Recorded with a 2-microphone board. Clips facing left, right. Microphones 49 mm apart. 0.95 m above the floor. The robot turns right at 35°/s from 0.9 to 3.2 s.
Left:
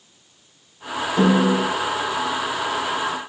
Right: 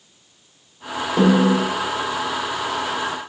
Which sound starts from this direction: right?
A snare drum, at 1.2 s.